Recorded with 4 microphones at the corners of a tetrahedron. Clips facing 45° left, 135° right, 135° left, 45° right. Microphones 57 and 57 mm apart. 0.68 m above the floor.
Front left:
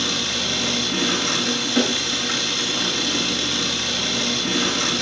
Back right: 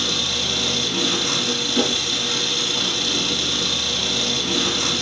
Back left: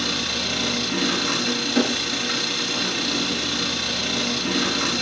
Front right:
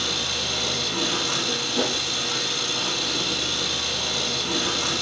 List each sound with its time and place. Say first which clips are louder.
0.0 s an engine running: even, back left 2 dB; 105° left, 10 m